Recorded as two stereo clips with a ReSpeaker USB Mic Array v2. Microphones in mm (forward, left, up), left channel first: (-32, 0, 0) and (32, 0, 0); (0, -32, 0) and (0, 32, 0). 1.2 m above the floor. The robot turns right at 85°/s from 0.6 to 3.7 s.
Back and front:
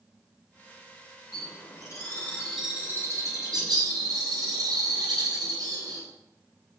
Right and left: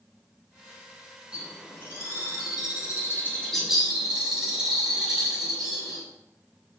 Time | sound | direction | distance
1.3 | a bird | 165° left | 6.5 m